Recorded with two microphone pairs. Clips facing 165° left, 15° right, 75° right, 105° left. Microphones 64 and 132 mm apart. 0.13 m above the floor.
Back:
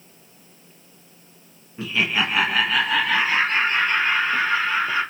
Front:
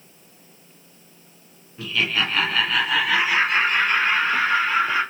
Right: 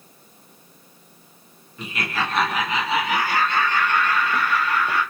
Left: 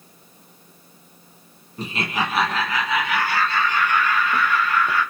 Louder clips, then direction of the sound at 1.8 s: Back 1 dB, left 2 dB; 115° left.